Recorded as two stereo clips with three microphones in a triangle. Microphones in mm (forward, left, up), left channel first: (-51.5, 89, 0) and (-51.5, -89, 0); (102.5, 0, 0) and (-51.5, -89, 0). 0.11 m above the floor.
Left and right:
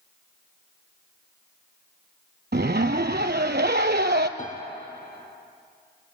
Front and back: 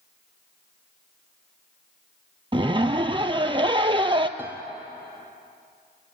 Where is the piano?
130° left, 1.5 m.